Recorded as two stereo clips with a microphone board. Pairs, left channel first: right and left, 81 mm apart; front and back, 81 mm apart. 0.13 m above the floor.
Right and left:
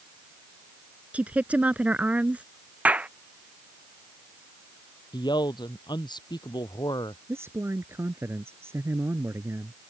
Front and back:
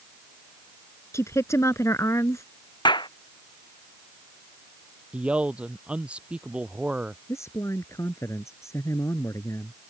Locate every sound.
1.1 s a woman speaking: 25° left
2.9 s a clap: 20° left
5.1 s a man speaking: 105° right
7.3 s a man speaking: 40° left